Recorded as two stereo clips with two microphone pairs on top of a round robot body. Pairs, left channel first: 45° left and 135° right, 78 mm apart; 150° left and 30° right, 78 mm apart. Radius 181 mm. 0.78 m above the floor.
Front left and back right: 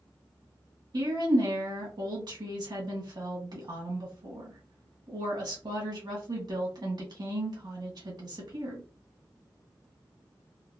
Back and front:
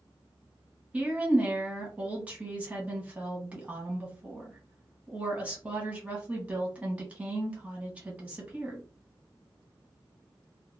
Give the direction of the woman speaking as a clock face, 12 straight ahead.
3 o'clock.